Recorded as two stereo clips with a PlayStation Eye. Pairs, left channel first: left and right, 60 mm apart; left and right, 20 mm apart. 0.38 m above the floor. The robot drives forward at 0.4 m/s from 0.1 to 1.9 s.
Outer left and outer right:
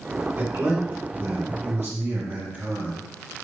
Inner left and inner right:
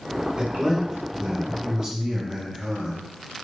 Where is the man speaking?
35° right (ahead or behind), 1.3 m; by 3.0 s 40° right (ahead or behind), 1.1 m.